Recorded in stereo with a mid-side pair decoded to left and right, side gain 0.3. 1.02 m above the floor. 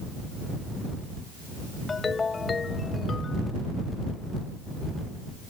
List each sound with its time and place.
1.9 s a ringtone: 45° left